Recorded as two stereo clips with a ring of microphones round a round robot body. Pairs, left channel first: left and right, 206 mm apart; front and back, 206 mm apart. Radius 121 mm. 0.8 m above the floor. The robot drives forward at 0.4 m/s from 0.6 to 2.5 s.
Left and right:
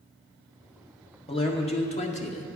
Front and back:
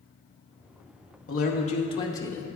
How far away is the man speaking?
About 0.8 m.